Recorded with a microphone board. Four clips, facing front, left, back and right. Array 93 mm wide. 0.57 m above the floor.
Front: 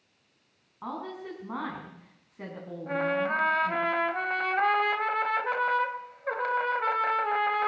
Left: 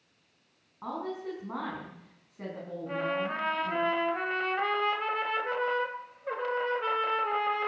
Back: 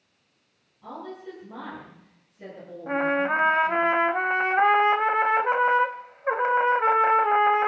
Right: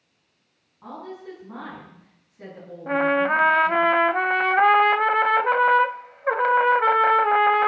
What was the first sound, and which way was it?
A woman speaking, 25° left.